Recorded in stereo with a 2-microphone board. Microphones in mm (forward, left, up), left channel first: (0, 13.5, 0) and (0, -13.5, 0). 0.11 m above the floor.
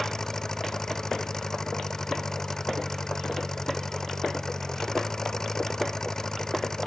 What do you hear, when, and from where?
0.0 s an engine running: 20° left (ahead or behind)